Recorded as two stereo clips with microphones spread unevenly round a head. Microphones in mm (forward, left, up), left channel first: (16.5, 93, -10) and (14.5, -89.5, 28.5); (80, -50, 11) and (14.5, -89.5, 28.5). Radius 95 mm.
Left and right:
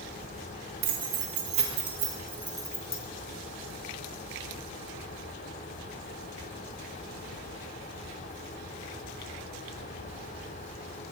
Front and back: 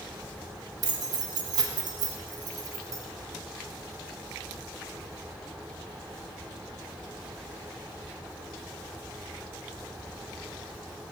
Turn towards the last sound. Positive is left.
turn(degrees=170)